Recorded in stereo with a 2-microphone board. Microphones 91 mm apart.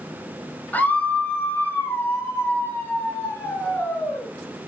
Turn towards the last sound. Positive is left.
turn(degrees=25)  # may be behind; listen again after turning